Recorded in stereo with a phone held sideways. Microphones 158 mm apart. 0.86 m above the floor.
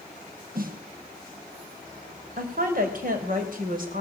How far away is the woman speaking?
About 4.5 m.